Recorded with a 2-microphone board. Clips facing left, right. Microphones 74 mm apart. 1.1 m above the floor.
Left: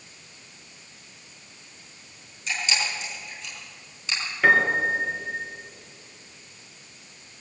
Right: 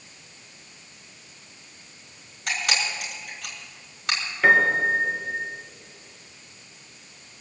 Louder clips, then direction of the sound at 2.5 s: Right 1 dB; 70° right (ahead or behind).